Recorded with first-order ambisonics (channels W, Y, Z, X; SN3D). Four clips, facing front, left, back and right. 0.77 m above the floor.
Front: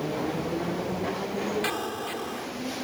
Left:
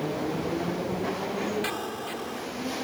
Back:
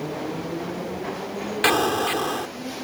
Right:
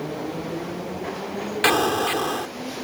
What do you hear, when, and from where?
1.6 s an explosion: 130° right